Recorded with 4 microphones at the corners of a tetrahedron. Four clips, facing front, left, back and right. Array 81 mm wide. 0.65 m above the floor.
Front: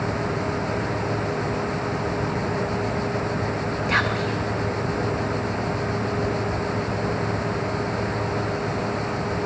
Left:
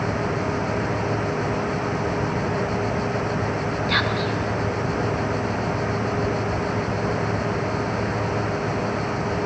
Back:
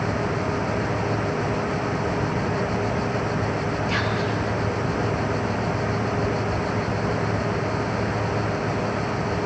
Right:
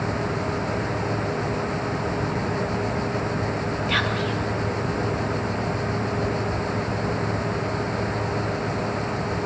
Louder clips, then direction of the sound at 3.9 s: Left 1 dB, front 5 dB; 20° left.